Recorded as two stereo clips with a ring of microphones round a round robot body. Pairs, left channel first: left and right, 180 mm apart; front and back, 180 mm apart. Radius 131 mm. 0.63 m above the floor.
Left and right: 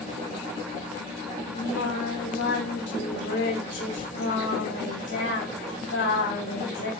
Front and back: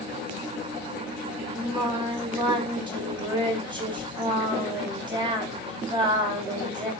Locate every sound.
1.5 s singing: 115° left, 3 m